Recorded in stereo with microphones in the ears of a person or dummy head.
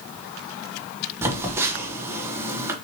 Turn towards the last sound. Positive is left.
turn(degrees=-10)  # may be behind; listen again after turning